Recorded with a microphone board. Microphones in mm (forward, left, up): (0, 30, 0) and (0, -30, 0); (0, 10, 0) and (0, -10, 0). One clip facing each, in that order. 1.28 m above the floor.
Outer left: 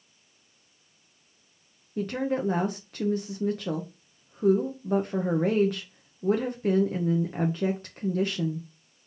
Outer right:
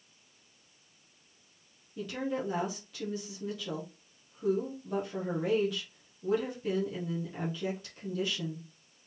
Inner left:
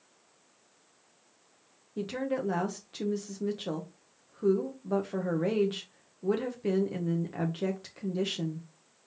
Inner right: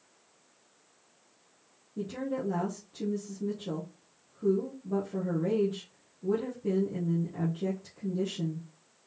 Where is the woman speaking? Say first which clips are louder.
Outer left 6 dB, inner left 2 dB; 50° left (ahead or behind), 0.6 m.